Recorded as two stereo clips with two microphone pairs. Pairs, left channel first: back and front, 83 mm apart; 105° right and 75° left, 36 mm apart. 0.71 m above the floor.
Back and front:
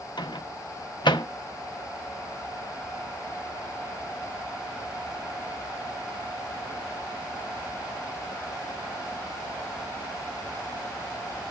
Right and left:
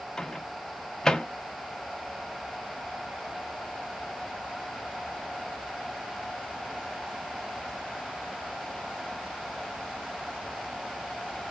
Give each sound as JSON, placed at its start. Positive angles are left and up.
{"t": 0.2, "sound": "a microwave", "azimuth_deg": 180, "distance_m": 0.6}